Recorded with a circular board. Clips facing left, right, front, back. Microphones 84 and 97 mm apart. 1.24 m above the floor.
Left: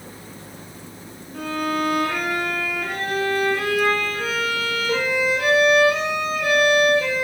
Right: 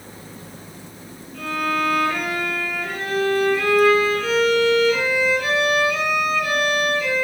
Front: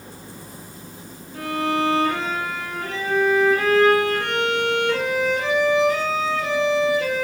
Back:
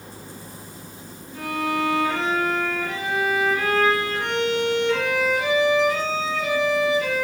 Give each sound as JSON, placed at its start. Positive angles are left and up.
{"t": 1.3, "sound": "a violin", "azimuth_deg": 50, "distance_m": 5.0}